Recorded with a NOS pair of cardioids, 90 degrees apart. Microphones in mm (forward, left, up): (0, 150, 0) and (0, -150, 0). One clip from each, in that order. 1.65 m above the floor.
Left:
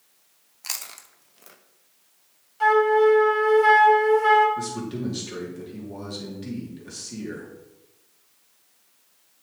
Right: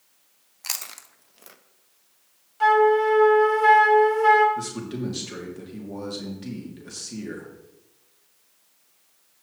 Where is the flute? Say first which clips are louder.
Even; 10° right, 1.7 m.